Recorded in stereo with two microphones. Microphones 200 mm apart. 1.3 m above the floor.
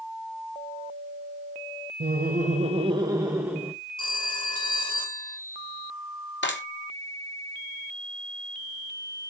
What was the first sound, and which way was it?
Laughter, 55° right (ahead or behind).